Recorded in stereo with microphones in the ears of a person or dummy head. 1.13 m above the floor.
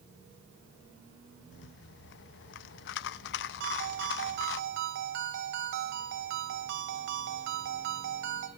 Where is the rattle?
65° left (ahead or behind), 0.5 m.